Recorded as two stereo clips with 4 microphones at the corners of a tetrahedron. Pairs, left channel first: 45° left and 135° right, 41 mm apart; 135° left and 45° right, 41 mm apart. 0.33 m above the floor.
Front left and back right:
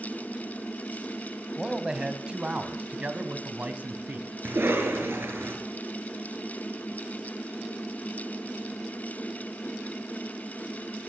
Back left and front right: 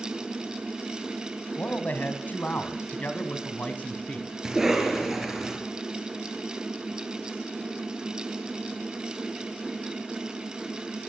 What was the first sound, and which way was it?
A man speaking, 155° left.